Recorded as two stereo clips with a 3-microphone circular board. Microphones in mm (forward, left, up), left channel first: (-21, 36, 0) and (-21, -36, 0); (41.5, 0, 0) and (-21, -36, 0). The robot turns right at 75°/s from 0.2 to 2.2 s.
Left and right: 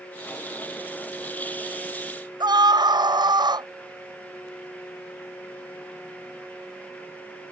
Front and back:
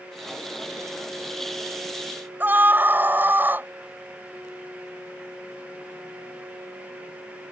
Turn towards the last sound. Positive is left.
turn(degrees=-85)